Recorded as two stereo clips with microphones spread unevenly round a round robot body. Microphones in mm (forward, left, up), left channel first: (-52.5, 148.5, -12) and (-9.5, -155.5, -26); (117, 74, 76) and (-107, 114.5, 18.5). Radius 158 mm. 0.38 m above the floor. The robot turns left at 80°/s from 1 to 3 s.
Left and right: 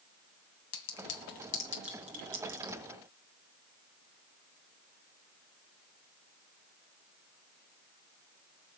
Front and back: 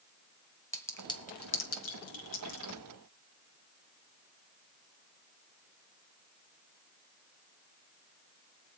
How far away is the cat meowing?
No cat meowing in this recording.